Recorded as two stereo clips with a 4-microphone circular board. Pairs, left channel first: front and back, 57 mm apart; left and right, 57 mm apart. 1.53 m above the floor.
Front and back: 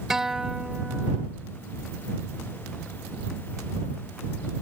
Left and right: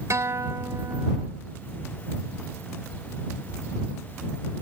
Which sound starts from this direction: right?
A guitar, at 0.1 s.